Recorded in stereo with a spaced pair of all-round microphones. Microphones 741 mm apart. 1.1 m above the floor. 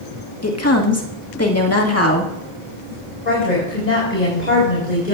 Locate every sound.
0.4 s a woman speaking: 20° left (ahead or behind), 1.7 m
3.2 s a woman speaking: 75° left (ahead or behind), 5 m